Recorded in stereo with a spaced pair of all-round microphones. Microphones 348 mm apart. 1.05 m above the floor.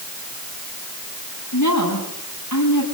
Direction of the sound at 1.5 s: 55° left (ahead or behind).